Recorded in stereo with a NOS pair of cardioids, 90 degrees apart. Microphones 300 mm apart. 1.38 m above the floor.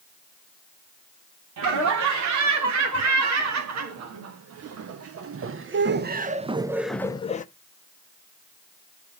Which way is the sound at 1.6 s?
70° right.